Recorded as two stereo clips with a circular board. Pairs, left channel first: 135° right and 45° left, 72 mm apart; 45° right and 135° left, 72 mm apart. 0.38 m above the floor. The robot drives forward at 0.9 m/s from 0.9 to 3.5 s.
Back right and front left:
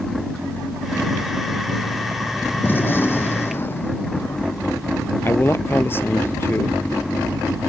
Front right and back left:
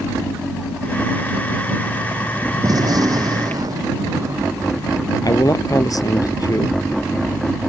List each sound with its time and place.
2.6 s a gunshot: 165° left
5.2 s a man speaking: 75° right